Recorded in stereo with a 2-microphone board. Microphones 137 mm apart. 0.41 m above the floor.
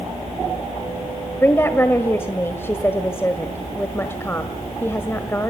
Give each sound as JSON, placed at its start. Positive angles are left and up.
{"t": 1.4, "sound": "a woman speaking", "side_deg": 20, "distance_m": 1.5}